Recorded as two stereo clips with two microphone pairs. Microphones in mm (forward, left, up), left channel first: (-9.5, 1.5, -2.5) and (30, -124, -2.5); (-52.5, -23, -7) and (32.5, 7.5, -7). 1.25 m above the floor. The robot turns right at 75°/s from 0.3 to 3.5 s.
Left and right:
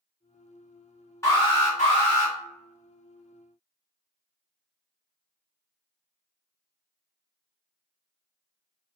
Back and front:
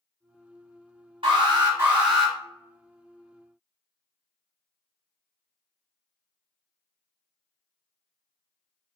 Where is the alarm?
35° left, 1.3 m; by 2.3 s 120° left, 1.3 m.